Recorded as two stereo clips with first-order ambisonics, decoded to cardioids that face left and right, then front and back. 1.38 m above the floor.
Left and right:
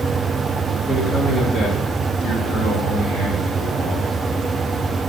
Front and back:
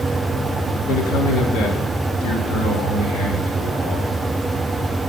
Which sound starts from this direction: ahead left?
A man speaking, at 0.9 s.